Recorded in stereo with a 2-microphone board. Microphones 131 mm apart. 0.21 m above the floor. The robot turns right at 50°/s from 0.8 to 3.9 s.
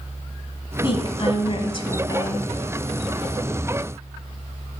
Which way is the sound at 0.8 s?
65° left.